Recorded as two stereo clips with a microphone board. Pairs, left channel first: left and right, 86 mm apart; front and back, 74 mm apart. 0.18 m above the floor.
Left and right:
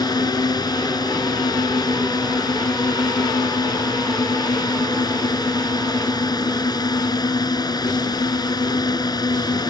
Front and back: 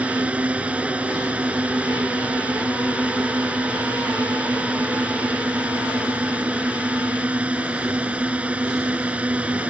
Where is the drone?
110° left.